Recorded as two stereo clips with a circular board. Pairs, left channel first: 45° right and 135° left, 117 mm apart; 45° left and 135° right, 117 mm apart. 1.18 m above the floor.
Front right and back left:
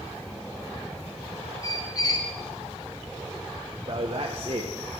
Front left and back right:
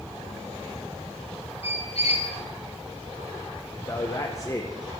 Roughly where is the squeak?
Ahead.